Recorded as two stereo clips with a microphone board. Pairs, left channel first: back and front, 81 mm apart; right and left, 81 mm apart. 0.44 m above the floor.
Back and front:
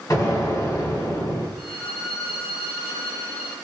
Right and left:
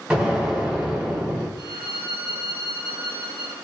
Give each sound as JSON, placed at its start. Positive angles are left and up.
{"t": 0.1, "sound": "an explosion", "azimuth_deg": 170, "distance_m": 1.5}
{"t": 1.6, "sound": "a violin", "azimuth_deg": -90, "distance_m": 1.1}